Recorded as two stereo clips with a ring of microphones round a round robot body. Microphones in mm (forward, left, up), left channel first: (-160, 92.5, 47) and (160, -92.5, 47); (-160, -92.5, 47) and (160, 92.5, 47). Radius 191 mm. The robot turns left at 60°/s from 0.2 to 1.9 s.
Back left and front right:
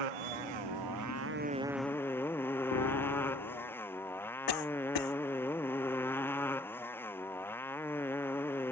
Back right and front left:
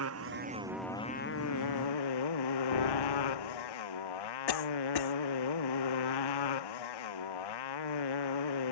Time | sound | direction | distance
0.0 | a motorcycle | 25° right | ?
2.7 | a piano | 160° right | ?
4.5 | a cough | 175° right | ?